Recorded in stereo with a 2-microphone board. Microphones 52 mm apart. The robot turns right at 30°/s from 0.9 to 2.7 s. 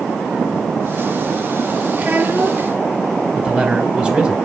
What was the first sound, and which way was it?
A child speaking, 15° right (ahead or behind).